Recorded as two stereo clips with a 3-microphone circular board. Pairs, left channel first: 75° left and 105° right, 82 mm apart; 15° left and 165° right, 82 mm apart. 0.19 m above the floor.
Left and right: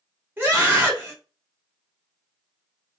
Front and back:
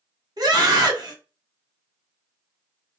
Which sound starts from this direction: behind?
A scream, at 0.4 s.